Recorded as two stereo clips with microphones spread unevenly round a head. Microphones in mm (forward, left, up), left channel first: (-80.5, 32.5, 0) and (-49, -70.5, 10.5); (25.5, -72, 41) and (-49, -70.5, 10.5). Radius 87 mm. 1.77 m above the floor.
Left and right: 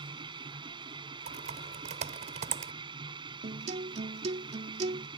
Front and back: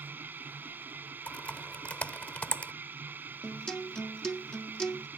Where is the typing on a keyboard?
65° right.